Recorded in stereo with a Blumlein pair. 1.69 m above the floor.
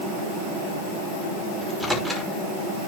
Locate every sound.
1.6 s a microwave: straight ahead, 2.5 m